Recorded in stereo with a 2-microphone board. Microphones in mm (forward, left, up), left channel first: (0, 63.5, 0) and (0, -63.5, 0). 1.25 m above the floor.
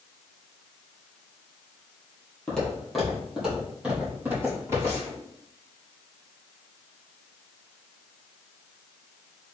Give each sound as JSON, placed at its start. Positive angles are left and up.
{"t": 2.5, "sound": "footsteps", "side_deg": 10, "distance_m": 1.9}